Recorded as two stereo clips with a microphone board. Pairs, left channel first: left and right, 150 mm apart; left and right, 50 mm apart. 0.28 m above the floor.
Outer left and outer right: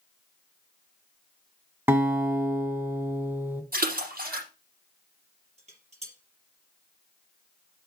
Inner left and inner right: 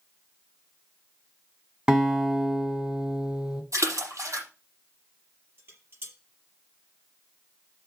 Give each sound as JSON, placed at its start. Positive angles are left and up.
{"t": 1.9, "sound": "a guitar", "side_deg": -15, "distance_m": 1.5}
{"t": 3.7, "sound": "a splash", "side_deg": -65, "distance_m": 5.5}
{"t": 5.6, "sound": "dishes clattering", "side_deg": -45, "distance_m": 5.0}